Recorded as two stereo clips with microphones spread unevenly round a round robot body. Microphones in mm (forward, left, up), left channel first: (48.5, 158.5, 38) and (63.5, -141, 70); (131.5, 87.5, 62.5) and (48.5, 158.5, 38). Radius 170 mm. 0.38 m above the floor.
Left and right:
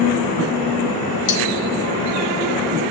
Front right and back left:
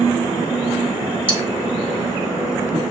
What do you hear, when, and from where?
1.3 s cutlery clinking: 70° left, 2 m